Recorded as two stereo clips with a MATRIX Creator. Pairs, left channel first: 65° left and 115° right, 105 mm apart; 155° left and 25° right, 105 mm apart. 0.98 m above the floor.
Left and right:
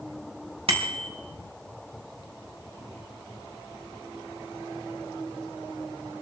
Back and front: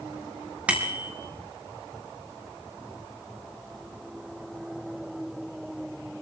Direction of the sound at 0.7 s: 100° right.